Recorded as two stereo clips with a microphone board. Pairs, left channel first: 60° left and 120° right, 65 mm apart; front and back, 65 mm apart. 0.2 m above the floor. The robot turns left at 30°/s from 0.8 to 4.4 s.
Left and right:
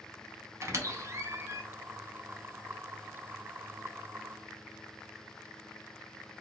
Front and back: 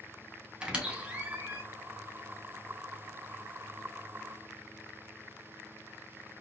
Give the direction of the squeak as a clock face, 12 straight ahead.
4 o'clock.